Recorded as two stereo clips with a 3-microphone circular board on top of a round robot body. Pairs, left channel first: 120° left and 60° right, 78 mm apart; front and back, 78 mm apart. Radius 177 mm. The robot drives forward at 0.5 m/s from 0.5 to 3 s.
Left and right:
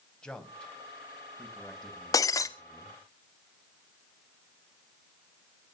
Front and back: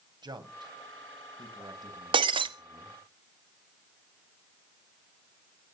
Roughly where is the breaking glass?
Behind.